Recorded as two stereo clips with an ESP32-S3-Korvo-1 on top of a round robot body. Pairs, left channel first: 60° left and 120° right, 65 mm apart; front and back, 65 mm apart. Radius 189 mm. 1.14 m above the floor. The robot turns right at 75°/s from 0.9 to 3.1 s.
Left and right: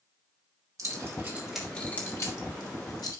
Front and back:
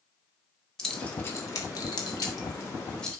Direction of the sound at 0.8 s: 85° right.